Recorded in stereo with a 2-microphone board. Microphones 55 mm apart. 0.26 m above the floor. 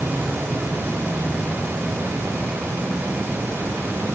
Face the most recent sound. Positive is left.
No sound to turn to.